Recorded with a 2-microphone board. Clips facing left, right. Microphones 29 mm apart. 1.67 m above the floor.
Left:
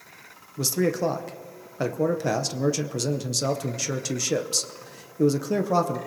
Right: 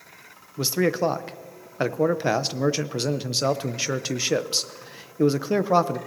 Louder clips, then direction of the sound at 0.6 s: Right 2 dB; 30° right (ahead or behind).